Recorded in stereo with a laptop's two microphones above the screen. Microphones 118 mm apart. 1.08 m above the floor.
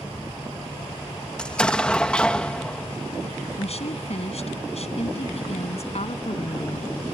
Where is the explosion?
10° left (ahead or behind).